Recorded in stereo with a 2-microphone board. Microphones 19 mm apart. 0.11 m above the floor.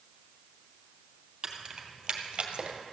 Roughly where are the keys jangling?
Right.